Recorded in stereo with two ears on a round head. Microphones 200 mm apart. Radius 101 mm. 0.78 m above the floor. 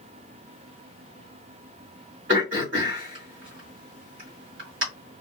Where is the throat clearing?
60° right (ahead or behind), 1.9 m.